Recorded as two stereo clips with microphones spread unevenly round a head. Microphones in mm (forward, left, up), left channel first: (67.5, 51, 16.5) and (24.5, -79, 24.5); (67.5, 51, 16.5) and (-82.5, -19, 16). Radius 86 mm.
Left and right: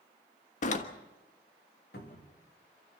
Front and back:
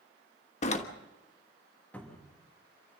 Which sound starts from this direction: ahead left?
A door slam, at 0.6 s.